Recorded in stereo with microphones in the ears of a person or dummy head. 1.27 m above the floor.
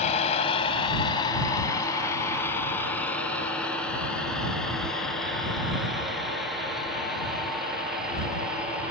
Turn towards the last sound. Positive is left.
turn(degrees=-10)  # may be behind; listen again after turning